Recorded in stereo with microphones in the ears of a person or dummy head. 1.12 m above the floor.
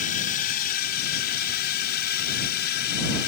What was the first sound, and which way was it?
A drone, 45° left (ahead or behind).